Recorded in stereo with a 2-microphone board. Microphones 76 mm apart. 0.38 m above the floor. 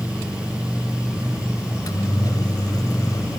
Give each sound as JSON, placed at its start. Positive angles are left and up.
{"t": 1.7, "sound": "a microwave", "side_deg": 50, "distance_m": 1.6}